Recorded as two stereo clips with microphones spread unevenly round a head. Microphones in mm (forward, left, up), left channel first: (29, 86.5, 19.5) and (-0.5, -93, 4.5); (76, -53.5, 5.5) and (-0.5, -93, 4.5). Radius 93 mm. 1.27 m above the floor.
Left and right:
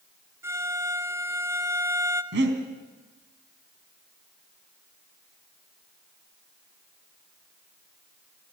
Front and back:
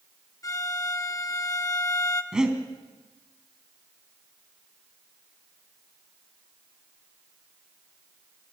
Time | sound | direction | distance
0.4 | a violin | 20° right | 1.5 m
2.3 | breathing | 70° right | 3.5 m